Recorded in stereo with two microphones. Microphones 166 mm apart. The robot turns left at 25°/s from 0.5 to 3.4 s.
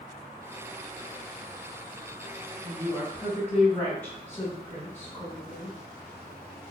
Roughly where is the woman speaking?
Centre.